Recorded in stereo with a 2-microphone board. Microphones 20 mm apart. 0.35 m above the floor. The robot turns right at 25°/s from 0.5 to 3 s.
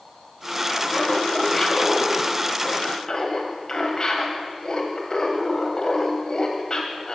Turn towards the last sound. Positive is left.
turn(degrees=45)